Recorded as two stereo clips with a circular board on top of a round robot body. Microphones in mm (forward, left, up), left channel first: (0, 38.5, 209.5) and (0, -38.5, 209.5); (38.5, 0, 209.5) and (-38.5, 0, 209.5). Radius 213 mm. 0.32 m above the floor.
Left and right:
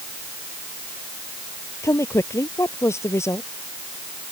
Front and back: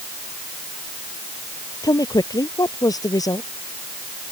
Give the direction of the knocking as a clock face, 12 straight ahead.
No knocking in this recording.